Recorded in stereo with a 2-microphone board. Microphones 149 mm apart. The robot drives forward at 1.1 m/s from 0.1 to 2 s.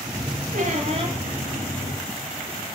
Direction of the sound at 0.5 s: 70° right (ahead or behind).